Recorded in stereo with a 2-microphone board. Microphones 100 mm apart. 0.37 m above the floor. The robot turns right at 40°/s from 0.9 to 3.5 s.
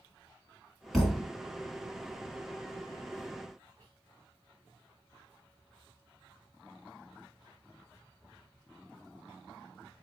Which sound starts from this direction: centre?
A thud, at 0.9 s.